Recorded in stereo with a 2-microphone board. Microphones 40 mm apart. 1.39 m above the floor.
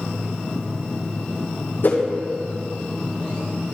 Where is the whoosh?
55° left (ahead or behind), 1.5 m.